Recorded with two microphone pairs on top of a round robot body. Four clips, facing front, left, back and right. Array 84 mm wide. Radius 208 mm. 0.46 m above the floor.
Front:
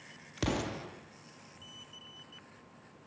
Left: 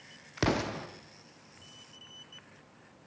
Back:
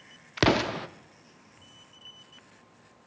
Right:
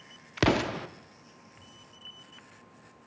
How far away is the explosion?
About 1.1 m.